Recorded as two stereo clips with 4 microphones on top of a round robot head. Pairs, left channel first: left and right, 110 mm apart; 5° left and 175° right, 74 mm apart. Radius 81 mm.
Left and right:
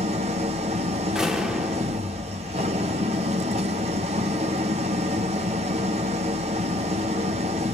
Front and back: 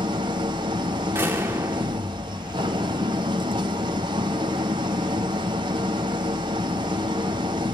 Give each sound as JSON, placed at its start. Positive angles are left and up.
{"t": 0.0, "sound": "an engine running", "azimuth_deg": -130, "distance_m": 1.2}
{"t": 1.1, "sound": "a door slam", "azimuth_deg": -170, "distance_m": 0.7}